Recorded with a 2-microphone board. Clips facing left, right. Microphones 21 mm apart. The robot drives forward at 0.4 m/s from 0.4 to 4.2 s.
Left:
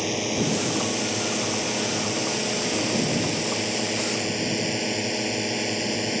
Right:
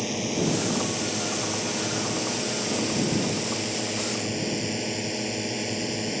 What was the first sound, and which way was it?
A drone, 15° left (ahead or behind).